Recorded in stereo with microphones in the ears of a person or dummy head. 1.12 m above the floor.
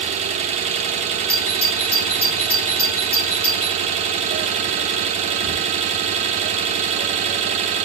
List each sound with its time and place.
0.0 s an engine running: 35° right (ahead or behind), 0.7 m
1.3 s a doorbell: 10° left (ahead or behind), 3 m